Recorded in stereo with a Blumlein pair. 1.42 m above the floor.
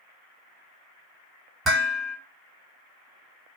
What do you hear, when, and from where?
1.6 s dishes clattering: 15° right, 1.5 m